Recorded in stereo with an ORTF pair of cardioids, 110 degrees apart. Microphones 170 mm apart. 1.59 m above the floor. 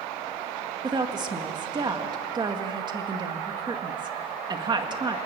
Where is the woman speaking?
25° right, 2 m.